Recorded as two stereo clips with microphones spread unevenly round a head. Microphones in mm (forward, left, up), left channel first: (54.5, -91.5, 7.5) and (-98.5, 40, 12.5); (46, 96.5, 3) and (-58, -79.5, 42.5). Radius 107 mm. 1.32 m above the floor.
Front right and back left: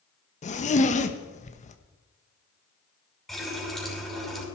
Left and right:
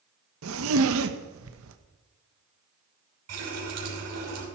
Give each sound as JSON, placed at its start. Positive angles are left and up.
{"t": 0.4, "sound": "a zipper", "azimuth_deg": -95, "distance_m": 1.1}
{"t": 3.3, "sound": "a running tap", "azimuth_deg": -130, "distance_m": 6.0}